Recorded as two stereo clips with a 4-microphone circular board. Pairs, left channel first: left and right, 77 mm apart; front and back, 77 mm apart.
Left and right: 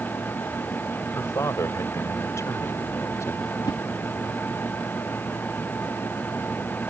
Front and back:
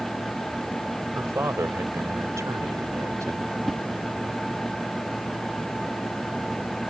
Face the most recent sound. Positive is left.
turn(degrees=90)